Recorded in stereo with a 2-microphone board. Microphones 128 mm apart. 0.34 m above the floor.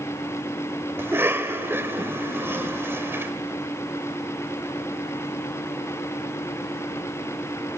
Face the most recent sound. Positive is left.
turn(degrees=-20)  # may be behind; listen again after turning